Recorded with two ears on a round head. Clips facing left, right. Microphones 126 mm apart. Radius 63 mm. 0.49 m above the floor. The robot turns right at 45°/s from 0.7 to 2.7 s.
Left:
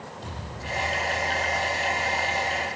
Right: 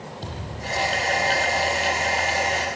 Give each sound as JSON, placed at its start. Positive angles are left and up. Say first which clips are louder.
{"t": 0.2, "sound": "a thud", "louder": "right 4 dB", "side_deg": -45, "distance_m": 8.5}